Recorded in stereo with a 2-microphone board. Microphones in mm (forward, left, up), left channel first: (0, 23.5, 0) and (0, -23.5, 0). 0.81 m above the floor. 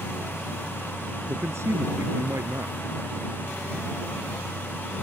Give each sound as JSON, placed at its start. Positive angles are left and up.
{"t": 1.3, "sound": "a man speaking", "side_deg": -65}